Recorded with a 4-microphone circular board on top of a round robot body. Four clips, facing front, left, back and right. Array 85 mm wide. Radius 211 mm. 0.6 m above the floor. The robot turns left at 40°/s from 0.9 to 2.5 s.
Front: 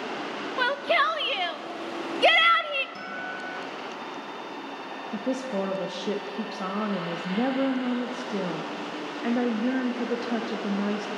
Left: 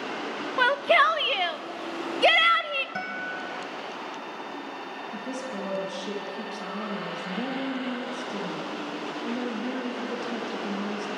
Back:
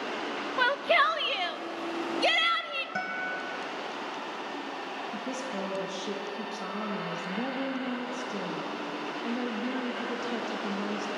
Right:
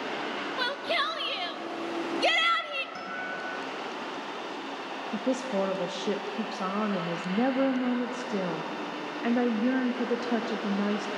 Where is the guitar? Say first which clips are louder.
Left 2 dB, back 2 dB; 150° left, 1.7 m.